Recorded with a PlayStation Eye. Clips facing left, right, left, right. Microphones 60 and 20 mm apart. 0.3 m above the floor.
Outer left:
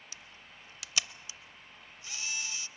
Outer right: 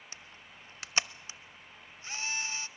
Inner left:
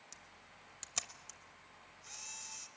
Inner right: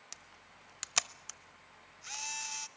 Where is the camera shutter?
35° right (ahead or behind), 0.5 m.